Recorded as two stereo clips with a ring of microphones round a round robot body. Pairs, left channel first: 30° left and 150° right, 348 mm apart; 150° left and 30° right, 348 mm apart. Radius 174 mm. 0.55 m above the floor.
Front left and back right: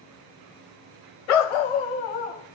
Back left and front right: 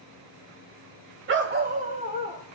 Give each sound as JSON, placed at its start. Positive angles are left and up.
{"t": 1.3, "sound": "a dog barking", "azimuth_deg": 30, "distance_m": 0.9}